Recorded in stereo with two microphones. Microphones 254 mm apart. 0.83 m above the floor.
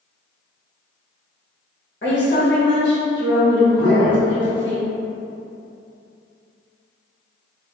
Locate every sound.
2.0 s a woman speaking: 45° left (ahead or behind), 1.3 m
3.8 s a man speaking: 40° left (ahead or behind), 1.6 m